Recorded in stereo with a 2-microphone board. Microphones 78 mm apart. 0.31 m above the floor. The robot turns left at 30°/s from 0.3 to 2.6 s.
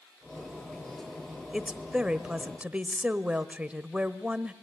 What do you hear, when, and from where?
1.5 s a woman speaking: 5° right (ahead or behind), 0.9 m; by 4.5 s 15° right (ahead or behind), 0.9 m